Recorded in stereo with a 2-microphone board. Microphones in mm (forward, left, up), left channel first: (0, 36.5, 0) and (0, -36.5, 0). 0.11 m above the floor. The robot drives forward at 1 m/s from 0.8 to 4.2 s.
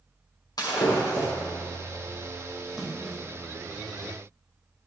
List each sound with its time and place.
0.6 s breaking glass: 60° left (ahead or behind), 6.5 m; by 1.3 s 55° left (ahead or behind), 6.5 m
2.7 s a splash: 5° right (ahead or behind), 2 m